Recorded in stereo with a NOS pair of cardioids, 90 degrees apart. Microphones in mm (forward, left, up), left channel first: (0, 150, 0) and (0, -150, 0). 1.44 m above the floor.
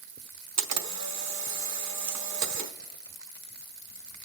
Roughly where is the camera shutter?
Ahead right.